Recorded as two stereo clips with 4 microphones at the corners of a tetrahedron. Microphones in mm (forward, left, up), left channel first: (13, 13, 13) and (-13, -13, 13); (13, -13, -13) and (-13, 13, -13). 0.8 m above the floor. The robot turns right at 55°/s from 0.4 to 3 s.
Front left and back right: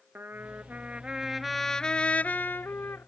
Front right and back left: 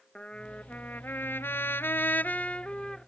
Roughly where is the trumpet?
Right.